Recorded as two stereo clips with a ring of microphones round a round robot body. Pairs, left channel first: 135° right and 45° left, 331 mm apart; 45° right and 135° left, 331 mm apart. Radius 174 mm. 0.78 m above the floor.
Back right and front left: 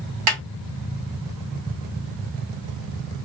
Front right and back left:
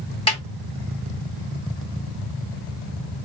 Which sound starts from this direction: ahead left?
A snare drum, at 0.3 s.